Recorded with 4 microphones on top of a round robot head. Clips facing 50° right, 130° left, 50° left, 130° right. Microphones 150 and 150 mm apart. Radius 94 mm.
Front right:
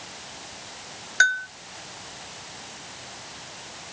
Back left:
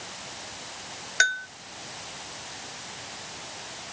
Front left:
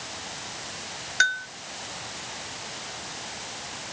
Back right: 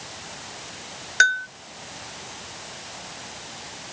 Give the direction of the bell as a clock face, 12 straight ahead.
5 o'clock.